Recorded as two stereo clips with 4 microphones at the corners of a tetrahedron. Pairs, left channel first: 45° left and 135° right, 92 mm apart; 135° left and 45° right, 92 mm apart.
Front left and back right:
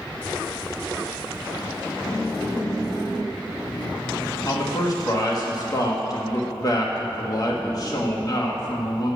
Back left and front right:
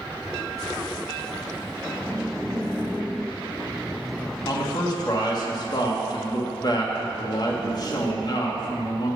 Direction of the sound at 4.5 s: 90° left.